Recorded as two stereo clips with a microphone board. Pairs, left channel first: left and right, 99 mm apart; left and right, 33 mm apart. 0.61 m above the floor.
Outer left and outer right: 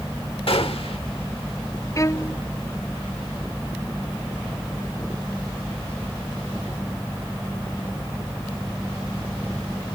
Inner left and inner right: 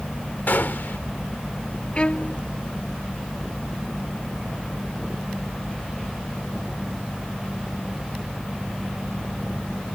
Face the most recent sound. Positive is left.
turn(degrees=30)  # may be behind; listen again after turning